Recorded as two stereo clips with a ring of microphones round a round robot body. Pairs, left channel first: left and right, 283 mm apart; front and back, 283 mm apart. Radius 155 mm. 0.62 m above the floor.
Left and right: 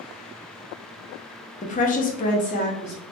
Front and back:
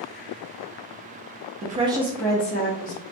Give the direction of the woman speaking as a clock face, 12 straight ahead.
7 o'clock.